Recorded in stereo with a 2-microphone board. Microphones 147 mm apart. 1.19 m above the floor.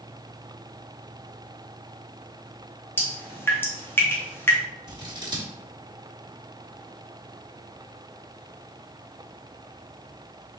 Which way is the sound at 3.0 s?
15° left (ahead or behind).